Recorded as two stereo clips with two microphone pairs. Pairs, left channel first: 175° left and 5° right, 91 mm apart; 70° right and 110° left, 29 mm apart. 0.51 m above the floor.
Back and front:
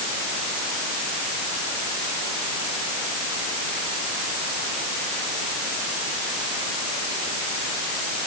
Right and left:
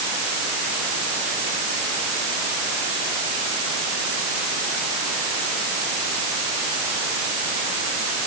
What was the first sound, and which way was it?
Only background noise.